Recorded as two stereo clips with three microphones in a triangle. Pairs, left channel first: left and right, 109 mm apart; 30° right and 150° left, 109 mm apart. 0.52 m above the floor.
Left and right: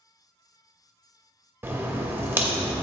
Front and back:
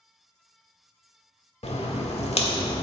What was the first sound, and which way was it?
A crack, 20° right.